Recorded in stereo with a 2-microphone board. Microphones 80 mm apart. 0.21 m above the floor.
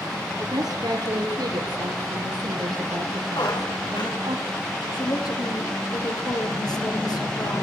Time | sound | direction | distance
0.4 | a woman speaking | 60° right (ahead or behind) | 4.5 m
3.4 | a squeak | 75° left (ahead or behind) | 7 m
4.9 | a woman speaking | 60° left (ahead or behind) | 7 m